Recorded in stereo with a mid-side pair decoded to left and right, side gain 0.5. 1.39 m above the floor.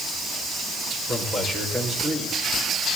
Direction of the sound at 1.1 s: 20° right.